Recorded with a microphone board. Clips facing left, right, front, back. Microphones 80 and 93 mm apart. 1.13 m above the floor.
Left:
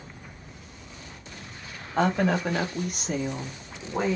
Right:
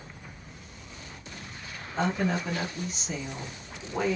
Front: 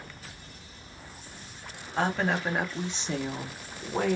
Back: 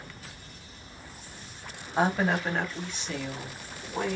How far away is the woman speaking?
About 1.0 m.